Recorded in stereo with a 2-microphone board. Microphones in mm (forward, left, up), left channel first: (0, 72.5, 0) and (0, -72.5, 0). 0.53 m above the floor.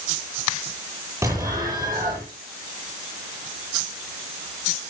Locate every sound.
1.2 s an explosion: 20° right (ahead or behind), 9.5 m